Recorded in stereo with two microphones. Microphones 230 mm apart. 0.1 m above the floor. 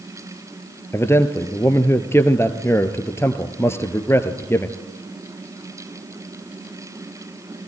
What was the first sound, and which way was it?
A man speaking, 10° left (ahead or behind).